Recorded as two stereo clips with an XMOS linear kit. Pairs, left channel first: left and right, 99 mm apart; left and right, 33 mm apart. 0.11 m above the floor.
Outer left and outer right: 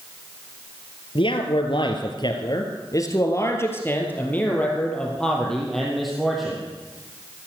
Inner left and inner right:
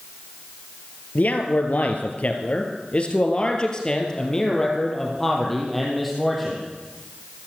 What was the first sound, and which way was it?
A man speaking, 60° left (ahead or behind).